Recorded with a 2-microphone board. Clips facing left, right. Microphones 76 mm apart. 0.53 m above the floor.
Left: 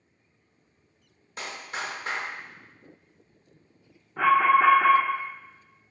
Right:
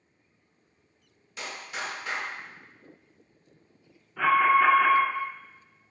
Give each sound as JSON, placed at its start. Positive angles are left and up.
{"t": 1.4, "sound": "a clap", "side_deg": 45, "distance_m": 0.8}
{"t": 4.2, "sound": "an alarm", "side_deg": 30, "distance_m": 0.7}